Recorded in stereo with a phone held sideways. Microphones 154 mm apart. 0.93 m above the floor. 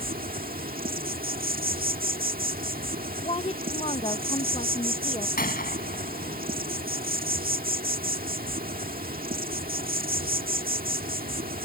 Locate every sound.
0.0 s an insect: 80° right
3.2 s a woman speaking: 45° left (ahead or behind)
5.4 s a gunshot: 85° left